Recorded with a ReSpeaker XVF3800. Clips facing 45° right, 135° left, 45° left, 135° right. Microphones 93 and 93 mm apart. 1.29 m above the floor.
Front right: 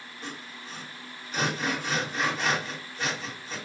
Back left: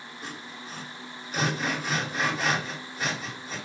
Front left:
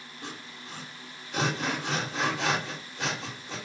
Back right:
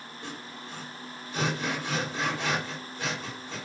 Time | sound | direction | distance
0.2 | sawing | 50° left | 1.6 m